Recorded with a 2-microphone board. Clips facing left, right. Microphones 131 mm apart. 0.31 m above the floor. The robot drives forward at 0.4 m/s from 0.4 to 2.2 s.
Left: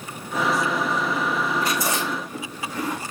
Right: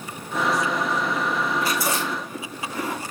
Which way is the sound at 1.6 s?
20° left (ahead or behind).